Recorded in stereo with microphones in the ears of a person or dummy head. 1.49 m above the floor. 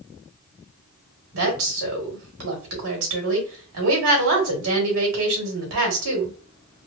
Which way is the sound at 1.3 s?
75° right (ahead or behind).